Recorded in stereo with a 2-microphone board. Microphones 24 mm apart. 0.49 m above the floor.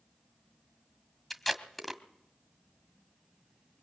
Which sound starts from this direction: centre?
Tape being pulled, at 1.3 s.